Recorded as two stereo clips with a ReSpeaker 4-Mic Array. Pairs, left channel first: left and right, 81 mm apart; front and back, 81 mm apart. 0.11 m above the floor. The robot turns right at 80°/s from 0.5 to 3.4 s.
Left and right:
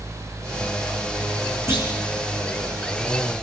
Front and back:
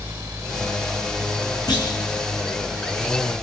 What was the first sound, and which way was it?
A clunk, 35° right.